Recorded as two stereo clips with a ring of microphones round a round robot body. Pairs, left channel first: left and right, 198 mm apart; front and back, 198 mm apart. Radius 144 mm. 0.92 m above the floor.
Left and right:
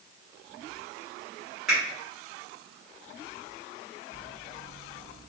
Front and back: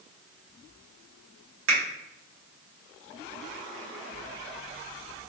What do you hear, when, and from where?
1.7 s a finger snap: straight behind, 1.5 m